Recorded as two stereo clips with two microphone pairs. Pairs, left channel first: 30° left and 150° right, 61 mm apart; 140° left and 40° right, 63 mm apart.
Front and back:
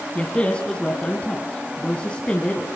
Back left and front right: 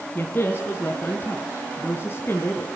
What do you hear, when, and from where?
0.1 s a man speaking: 95° left, 2 m